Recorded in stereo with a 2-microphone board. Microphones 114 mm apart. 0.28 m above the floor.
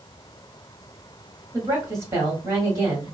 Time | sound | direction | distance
1.5 | a woman speaking | 25° right (ahead or behind) | 1.7 m